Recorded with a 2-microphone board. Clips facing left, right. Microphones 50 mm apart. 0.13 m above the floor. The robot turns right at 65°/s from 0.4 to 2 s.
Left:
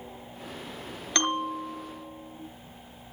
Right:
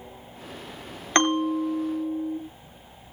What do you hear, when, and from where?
1.1 s a bell: 135° right, 1.1 m; by 2.4 s 80° right, 1.1 m